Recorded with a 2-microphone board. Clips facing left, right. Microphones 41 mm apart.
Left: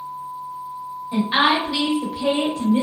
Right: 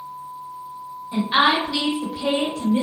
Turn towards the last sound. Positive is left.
turn(degrees=15)  # may be behind; listen again after turning